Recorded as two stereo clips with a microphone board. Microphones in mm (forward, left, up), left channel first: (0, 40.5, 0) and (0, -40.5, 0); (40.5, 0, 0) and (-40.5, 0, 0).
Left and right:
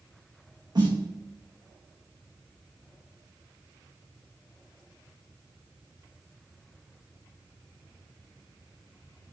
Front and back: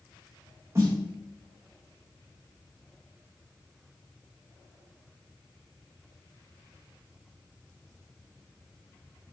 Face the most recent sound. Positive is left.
turn(degrees=-125)